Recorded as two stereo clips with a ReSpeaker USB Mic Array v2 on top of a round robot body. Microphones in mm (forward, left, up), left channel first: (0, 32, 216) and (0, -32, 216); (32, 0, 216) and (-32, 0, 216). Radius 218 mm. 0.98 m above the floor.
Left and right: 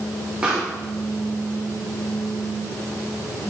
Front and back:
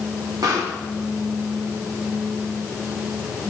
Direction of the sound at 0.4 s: 165° right.